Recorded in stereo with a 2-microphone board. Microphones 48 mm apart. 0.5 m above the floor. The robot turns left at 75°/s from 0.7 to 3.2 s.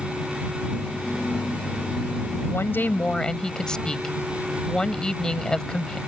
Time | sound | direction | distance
2.5 | a woman speaking | 70° left | ?